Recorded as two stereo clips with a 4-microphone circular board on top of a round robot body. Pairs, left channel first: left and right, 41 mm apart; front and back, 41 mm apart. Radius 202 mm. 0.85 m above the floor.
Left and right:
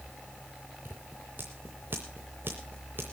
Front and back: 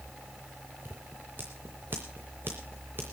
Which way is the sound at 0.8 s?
135° right.